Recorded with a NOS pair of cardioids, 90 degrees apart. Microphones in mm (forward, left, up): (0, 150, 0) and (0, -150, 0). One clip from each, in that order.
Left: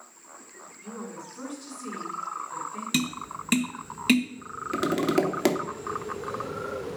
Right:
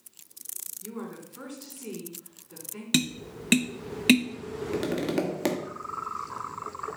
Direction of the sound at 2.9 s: 20° right.